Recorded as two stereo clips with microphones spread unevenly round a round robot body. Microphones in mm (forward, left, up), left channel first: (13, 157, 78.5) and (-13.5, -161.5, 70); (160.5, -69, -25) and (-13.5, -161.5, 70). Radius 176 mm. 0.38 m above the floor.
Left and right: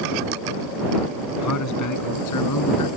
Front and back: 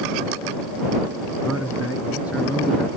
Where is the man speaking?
120° left; by 2.9 s 115° left.